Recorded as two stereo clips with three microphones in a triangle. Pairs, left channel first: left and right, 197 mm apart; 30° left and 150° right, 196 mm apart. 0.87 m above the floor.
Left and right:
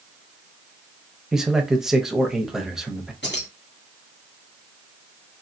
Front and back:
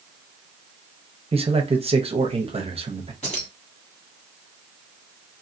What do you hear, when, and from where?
1.3 s a man speaking: 175° right, 0.7 m
3.2 s keys jangling: 80° left, 1.3 m